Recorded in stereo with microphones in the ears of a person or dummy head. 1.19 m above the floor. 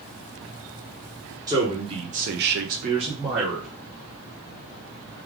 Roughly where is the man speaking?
Right.